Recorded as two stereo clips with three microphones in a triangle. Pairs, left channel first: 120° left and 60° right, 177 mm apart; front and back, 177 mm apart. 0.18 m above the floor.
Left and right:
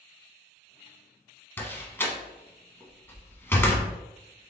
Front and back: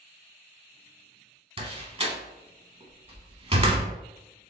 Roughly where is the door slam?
Behind.